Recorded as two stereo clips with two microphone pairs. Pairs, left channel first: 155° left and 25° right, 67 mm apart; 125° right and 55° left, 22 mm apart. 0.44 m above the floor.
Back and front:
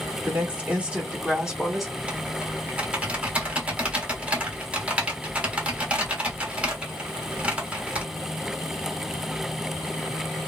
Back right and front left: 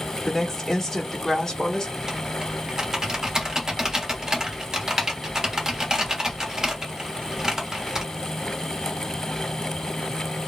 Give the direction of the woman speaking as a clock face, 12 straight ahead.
1 o'clock.